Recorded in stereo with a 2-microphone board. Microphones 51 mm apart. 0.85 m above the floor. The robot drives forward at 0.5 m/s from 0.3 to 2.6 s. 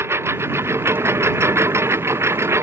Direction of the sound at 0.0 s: 55° right (ahead or behind).